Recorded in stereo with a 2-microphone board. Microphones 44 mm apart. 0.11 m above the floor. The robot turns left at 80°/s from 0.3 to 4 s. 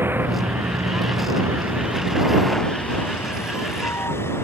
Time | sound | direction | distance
0.0 | a vehicle | 55° right (ahead or behind) | ?